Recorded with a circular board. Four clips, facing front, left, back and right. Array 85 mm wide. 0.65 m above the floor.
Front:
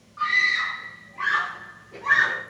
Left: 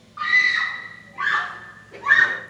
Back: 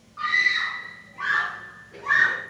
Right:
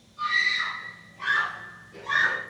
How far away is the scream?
About 4 m.